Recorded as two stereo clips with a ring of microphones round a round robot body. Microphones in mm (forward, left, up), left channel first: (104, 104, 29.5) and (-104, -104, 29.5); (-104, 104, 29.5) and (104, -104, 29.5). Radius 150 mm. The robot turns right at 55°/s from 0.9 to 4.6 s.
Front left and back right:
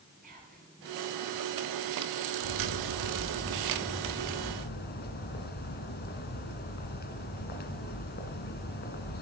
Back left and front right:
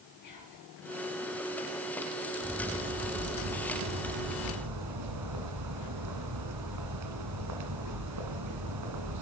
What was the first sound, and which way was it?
Whispering, 160° left.